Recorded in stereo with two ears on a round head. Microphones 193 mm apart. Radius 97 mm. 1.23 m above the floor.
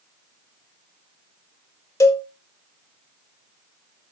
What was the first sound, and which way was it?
A cowbell, 15° left (ahead or behind).